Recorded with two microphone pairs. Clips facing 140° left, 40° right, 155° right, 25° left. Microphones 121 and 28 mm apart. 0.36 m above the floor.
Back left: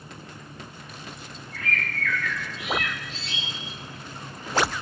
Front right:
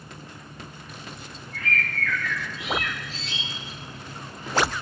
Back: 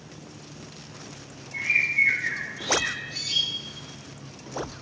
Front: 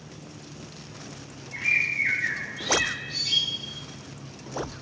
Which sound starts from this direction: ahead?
A bird, at 1.5 s.